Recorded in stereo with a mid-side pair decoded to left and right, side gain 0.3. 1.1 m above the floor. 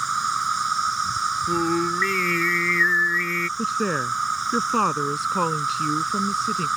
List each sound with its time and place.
0.0 s an insect: 35° right
1.5 s singing: 15° left
3.6 s a woman speaking: 5° right